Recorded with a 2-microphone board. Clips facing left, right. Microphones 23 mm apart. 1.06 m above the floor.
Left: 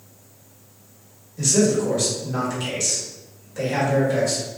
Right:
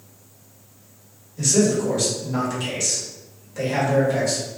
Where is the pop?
I don't hear a pop.